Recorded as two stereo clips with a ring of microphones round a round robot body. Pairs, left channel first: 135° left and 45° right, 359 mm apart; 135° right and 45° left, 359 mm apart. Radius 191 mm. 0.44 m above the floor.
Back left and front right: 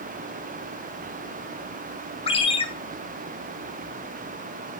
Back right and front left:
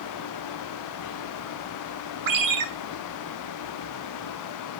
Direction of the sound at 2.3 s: 65° left.